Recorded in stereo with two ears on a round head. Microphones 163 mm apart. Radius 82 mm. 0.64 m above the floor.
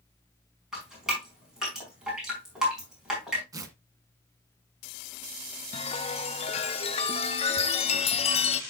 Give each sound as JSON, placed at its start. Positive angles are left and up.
{"t": 0.7, "sound": "dripping", "side_deg": -5, "distance_m": 5.0}
{"t": 3.5, "sound": "tearing paper", "side_deg": -20, "distance_m": 1.5}
{"t": 5.7, "sound": "a chime", "side_deg": 35, "distance_m": 0.7}